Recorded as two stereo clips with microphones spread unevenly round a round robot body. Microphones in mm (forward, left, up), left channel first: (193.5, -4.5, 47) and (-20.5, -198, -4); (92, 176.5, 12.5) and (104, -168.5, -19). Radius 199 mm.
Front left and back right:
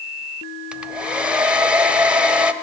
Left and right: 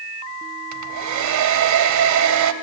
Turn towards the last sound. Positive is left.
turn(degrees=-55)